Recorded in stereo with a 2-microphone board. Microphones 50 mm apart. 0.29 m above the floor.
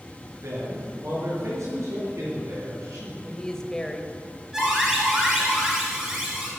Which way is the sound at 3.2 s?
15° left (ahead or behind).